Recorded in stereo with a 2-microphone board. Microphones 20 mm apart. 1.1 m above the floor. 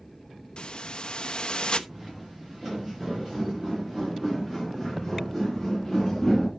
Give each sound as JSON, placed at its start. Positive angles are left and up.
{"t": 0.6, "sound": "a hiss", "side_deg": 50, "distance_m": 1.0}
{"t": 1.9, "sound": "footsteps", "side_deg": -35, "distance_m": 7.0}